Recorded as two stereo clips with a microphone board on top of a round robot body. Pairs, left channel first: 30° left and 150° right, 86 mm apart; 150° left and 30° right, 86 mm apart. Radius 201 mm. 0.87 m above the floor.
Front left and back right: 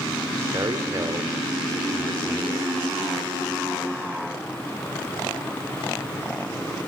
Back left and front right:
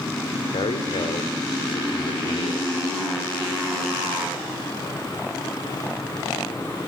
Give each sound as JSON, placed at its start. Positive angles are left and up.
{"t": 0.5, "sound": "a man speaking", "azimuth_deg": 160, "distance_m": 3.0}